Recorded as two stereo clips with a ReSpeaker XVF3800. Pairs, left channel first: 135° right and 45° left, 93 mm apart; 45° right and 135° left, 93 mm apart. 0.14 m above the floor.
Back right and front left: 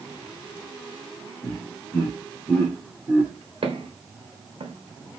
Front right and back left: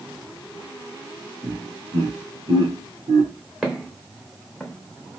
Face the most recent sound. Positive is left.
turn(degrees=20)